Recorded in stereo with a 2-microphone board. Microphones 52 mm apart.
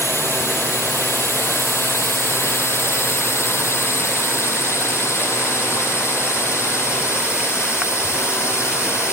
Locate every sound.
0.0 s a drone: 55° left (ahead or behind); by 9.1 s 60° left (ahead or behind)